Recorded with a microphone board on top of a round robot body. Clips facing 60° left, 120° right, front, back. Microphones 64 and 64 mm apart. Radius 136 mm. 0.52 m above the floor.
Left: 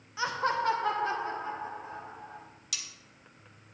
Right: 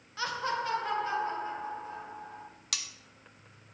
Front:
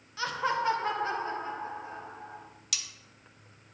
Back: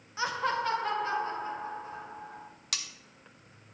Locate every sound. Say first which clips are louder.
0.2 s laughter: left 3 dB, even; 130° left, 0.7 m; by 2.5 s 45° left, 2.5 m
2.7 s cutlery clinking: right 3 dB, back 2 dB; 140° right, 0.8 m